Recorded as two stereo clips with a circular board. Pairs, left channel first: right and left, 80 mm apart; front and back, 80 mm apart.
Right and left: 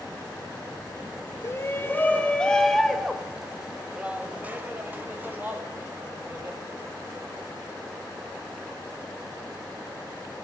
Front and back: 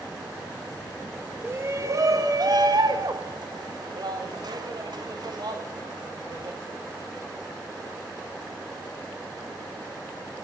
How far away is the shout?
About 1.0 m.